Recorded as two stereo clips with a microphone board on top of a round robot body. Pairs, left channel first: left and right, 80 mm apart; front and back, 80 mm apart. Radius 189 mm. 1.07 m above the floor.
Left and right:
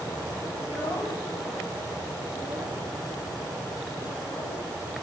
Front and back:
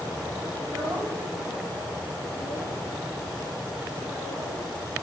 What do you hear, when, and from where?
0.6 s a child speaking: 145° left, 4.5 m; by 4.7 s 140° left, 7.5 m